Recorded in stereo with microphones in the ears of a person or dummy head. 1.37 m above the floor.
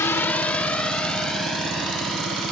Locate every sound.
0.0 s a drone: 15° left (ahead or behind); by 2.5 s centre (ahead or behind)